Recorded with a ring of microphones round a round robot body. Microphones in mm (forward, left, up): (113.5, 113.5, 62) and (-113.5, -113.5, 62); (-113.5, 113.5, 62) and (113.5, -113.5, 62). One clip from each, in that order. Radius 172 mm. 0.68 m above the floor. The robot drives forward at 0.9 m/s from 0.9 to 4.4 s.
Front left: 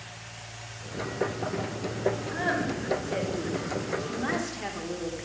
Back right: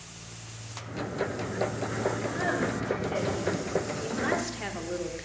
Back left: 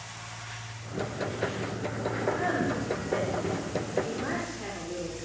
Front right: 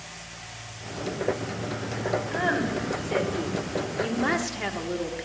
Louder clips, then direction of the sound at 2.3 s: Even, front right 4 dB; 30° right.